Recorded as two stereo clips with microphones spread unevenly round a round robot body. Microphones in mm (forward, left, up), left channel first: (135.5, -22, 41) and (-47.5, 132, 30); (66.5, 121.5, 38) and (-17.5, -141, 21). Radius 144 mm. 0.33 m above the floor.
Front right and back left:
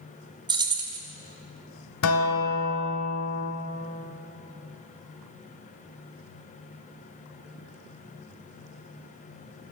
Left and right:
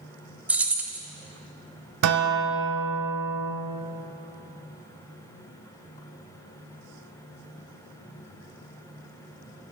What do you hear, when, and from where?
0.5 s keys jangling: straight behind, 0.5 m
2.0 s a guitar: 75° right, 0.8 m